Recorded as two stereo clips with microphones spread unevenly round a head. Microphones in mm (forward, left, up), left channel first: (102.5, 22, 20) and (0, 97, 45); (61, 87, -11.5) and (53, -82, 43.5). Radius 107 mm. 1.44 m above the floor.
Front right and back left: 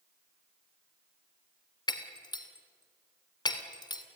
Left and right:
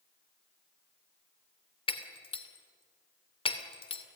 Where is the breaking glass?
25° left, 2.5 m.